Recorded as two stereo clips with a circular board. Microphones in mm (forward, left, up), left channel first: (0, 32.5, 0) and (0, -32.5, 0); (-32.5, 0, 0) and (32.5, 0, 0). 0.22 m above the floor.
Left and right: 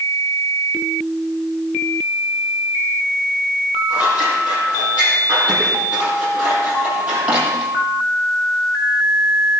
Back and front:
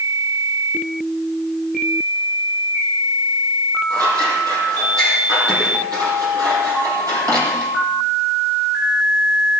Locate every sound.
3.9 s scissors: 20° right, 6.5 m